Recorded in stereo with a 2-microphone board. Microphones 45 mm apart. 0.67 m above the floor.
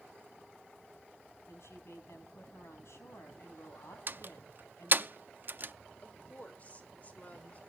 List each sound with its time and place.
1.5 s a woman speaking: 80° left, 4.5 m
4.1 s a door slam: 50° right (ahead or behind), 0.5 m
6.0 s a woman speaking: 30° left (ahead or behind), 3 m